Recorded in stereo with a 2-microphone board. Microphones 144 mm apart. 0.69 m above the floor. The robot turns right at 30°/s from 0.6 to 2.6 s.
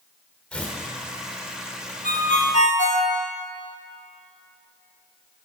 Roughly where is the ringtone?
Left.